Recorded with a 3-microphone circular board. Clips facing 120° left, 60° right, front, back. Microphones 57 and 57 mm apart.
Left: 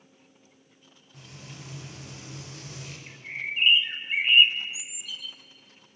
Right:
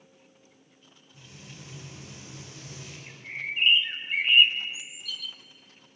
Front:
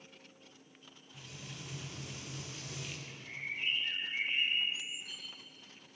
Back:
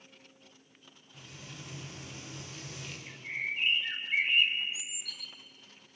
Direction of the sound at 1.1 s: 90° left.